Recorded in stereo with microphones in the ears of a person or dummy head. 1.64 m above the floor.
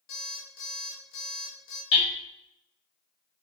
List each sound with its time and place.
0.1 s an alarm clock: 60° left (ahead or behind), 1.5 m
1.9 s hammering: 65° left (ahead or behind), 1.7 m